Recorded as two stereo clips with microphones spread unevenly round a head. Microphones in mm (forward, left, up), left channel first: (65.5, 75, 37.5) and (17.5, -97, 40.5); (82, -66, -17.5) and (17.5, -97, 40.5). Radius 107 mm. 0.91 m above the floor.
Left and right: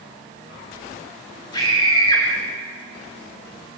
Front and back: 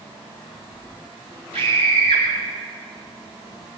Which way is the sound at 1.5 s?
145° left.